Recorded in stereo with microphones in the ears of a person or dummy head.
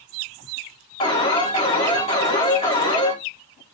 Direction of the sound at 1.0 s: 30° left (ahead or behind).